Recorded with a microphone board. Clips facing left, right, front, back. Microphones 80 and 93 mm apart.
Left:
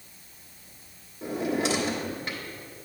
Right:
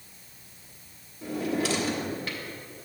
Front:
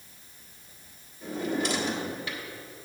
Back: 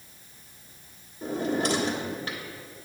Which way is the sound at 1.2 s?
150° left.